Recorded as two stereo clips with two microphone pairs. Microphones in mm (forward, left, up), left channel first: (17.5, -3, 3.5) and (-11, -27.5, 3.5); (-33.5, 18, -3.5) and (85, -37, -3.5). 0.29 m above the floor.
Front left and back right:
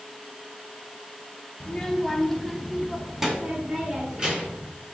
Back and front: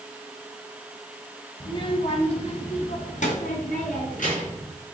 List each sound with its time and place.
1.6 s a child speaking: 105° left, 1.2 m; by 4.7 s 155° left, 3 m